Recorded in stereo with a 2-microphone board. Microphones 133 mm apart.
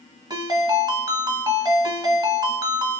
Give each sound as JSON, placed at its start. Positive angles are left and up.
{"t": 0.3, "sound": "a ringtone", "side_deg": -30, "distance_m": 1.5}